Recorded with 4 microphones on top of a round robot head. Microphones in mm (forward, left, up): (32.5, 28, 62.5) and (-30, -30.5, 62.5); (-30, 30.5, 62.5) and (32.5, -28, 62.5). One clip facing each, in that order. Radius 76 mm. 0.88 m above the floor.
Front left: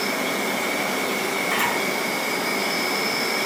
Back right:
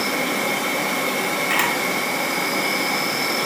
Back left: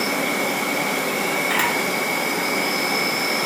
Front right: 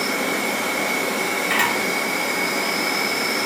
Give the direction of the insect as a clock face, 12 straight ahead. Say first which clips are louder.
Back right 2 dB, back left 1 dB; 6 o'clock.